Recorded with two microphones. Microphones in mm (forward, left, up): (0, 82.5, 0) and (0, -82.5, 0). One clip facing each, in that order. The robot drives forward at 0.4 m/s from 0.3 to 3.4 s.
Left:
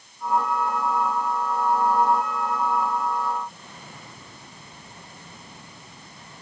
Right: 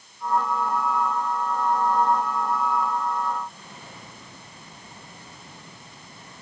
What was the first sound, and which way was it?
Only background noise.